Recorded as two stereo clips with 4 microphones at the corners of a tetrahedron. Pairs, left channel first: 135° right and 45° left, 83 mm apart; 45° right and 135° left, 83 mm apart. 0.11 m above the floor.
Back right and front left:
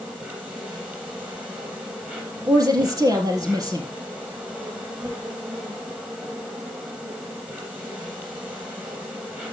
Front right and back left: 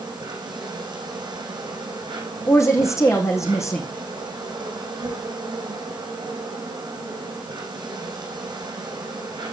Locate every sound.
0.0 s an insect: 120° left, 4 m
2.5 s a woman speaking: 5° left, 3.5 m